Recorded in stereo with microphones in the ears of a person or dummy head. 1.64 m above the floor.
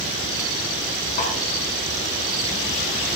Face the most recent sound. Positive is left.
turn(degrees=50)  # may be behind; listen again after turning